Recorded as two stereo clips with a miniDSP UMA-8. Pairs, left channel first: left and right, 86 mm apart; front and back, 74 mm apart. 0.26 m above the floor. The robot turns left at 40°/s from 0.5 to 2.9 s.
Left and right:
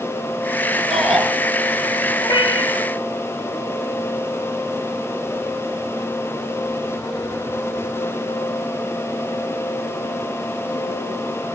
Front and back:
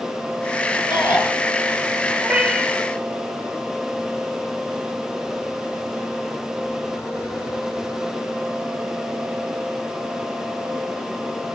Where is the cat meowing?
115° left, 2.5 m; by 2.9 s 85° left, 2.5 m.